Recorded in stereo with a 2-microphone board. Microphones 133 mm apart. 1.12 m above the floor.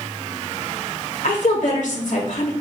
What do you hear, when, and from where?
1.2 s a woman speaking: 70° left (ahead or behind), 1.9 m